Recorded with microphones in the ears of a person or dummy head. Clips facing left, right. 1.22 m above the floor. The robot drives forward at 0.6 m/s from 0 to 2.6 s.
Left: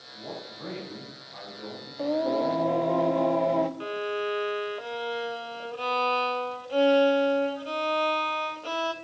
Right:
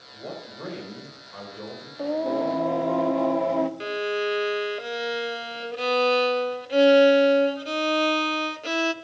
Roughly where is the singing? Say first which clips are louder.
Right 1 dB; centre.